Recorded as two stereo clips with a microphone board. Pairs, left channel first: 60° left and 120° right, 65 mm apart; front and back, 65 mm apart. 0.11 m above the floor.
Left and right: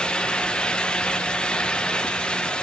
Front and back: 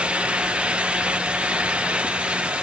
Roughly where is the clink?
I don't hear a clink.